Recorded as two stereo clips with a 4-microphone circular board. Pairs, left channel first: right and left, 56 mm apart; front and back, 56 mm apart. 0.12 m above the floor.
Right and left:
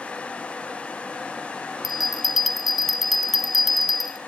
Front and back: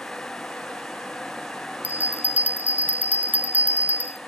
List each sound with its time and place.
1.8 s a bell: 175° left, 0.9 m